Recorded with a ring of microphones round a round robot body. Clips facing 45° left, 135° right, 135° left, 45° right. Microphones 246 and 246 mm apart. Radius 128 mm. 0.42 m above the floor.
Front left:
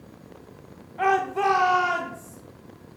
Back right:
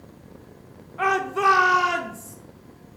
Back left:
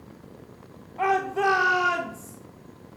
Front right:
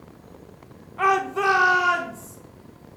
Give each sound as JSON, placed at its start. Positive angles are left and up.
{"t": 1.0, "sound": "a shout", "azimuth_deg": -65, "distance_m": 0.9}